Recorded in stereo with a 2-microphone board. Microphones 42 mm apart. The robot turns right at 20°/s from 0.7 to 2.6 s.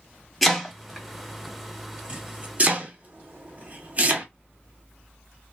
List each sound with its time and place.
0.4 s chopping: 5° left (ahead or behind), 0.8 m; by 4.3 s 35° right (ahead or behind), 0.8 m